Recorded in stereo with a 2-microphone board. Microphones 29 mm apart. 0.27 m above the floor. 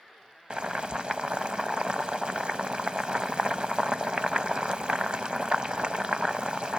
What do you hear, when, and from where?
0.5 s boiling: 35° right (ahead or behind), 0.5 m